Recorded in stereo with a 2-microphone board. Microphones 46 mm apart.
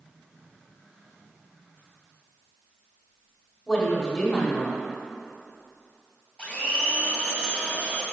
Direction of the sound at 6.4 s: 25° left (ahead or behind).